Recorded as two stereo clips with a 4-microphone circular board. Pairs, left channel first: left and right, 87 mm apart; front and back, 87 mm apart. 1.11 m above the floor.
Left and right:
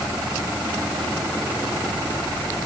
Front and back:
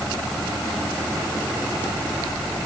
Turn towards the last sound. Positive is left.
No sound to turn to.